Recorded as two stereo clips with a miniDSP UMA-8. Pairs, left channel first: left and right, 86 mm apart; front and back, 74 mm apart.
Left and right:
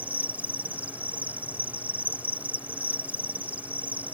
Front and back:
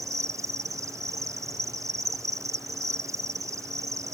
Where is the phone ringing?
I don't hear a phone ringing.